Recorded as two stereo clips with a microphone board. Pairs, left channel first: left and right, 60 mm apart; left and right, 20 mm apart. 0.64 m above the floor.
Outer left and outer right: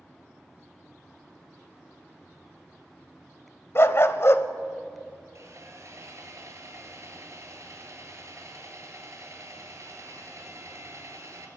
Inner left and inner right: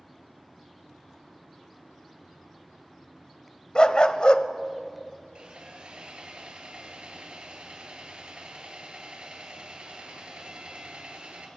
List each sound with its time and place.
3.8 s a dog barking: 50° left (ahead or behind), 0.7 m
5.3 s sawing: 55° right (ahead or behind), 1.9 m